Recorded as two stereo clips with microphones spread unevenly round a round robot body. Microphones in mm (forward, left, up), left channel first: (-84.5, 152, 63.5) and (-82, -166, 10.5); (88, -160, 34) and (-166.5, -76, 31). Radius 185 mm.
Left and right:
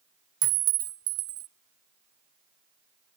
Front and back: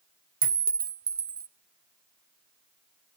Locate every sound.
0.4 s a clink: 140° right, 0.8 m